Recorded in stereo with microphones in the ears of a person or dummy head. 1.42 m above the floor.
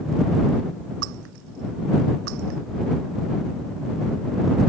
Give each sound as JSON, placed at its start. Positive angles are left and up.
{"t": 1.0, "sound": "breaking glass", "side_deg": -65}